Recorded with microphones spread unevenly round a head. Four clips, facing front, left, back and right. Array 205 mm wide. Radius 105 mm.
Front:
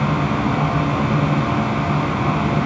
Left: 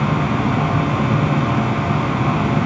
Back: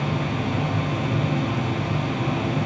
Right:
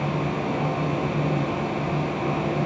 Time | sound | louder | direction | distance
0.0 | a fan | left 7 dB, front 6 dB | 60° left | 4.5 m